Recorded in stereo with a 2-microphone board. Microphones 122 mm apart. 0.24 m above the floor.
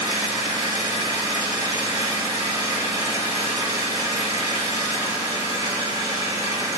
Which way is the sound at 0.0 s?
30° right (ahead or behind).